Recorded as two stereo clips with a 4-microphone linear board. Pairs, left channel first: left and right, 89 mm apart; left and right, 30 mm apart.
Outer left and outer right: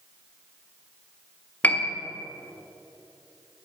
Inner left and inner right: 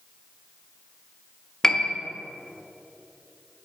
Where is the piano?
15° left (ahead or behind), 1.1 m.